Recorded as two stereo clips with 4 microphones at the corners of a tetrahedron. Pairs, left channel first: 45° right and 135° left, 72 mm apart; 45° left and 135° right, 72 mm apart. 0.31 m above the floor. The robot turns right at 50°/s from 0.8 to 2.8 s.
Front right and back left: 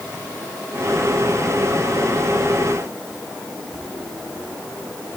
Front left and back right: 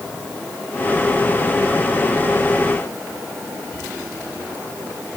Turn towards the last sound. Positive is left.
No sound to turn to.